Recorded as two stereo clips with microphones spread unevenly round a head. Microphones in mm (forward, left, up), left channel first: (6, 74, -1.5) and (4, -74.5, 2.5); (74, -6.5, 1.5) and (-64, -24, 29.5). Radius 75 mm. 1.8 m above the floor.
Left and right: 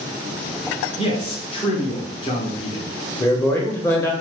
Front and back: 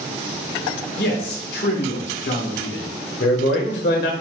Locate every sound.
1.0 s a man speaking: 35° left, 1.3 m
3.2 s a man speaking: 15° left, 1.1 m